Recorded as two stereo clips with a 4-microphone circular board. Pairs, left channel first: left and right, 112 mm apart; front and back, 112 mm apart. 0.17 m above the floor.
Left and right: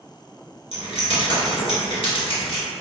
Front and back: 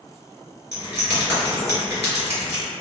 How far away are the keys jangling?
About 1.8 m.